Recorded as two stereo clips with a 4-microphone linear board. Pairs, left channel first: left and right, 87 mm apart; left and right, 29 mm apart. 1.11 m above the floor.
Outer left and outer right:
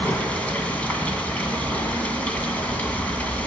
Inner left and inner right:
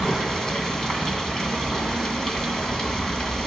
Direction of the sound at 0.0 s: 15° left (ahead or behind).